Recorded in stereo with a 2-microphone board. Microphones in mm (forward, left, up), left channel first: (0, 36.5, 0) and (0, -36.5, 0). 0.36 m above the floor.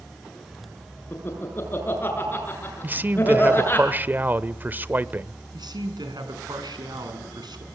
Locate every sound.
1.1 s laughter: 30° left (ahead or behind), 6.5 m
2.8 s a man speaking: 25° right (ahead or behind), 0.9 m
5.5 s a man speaking: 70° right (ahead or behind), 5 m